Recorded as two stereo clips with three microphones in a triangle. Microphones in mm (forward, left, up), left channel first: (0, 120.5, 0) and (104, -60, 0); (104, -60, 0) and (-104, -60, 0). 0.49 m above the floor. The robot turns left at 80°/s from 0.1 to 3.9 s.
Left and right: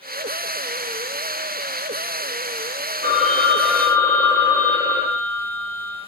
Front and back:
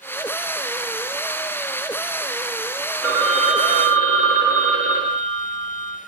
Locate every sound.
3.0 s a phone ringing: 95° right, 0.6 m; by 6.0 s 165° right, 0.6 m